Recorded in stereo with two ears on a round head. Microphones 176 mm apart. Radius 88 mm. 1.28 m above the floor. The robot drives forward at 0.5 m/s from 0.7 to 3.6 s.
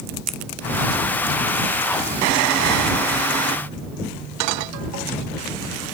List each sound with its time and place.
0.3 s scissors: 5° left (ahead or behind)